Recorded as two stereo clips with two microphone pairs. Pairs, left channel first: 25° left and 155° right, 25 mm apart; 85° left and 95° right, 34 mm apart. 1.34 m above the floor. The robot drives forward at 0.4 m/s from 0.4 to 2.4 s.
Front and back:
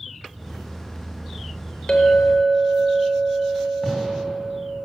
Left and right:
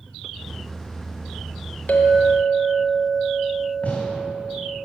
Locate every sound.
1.9 s a clink: 75° left, 0.9 m; by 4.8 s 90° left, 0.9 m
3.8 s a gunshot: 125° left, 2 m